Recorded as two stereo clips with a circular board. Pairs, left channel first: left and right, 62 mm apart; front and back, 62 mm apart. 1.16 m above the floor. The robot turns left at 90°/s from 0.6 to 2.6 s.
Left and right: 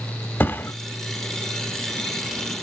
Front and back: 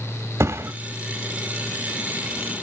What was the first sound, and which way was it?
A thud, 140° left.